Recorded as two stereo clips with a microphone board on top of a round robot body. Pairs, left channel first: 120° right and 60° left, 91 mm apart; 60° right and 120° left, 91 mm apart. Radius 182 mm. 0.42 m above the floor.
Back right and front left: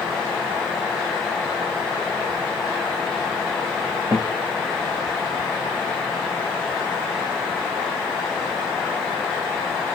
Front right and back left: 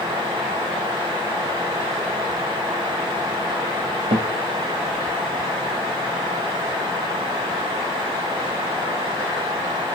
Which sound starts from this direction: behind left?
A guitar, at 4.1 s.